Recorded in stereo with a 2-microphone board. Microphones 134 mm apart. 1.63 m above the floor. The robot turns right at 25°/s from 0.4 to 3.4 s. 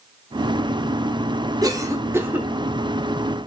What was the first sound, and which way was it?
A cough, 30° right (ahead or behind).